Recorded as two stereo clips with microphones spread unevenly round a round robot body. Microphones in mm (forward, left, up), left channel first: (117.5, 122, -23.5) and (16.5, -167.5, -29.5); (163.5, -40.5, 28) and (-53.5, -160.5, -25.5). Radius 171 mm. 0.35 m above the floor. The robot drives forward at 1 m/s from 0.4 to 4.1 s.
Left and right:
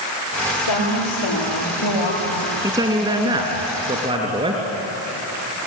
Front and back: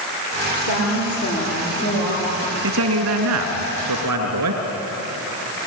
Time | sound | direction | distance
0.6 | a woman speaking | 75° left | 8.5 m
2.6 | a man speaking | 170° left | 2.5 m